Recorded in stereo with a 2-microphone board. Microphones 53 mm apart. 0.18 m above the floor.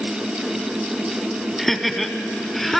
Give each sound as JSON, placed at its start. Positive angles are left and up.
{"t": 1.6, "sound": "laughter", "side_deg": 5, "distance_m": 1.1}